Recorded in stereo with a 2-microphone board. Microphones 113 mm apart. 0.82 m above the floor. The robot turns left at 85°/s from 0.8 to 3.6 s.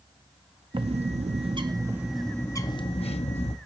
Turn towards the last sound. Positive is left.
turn(degrees=60)